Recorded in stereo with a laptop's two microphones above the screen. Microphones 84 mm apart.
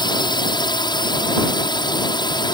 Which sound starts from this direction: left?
A drone, at 0.0 s.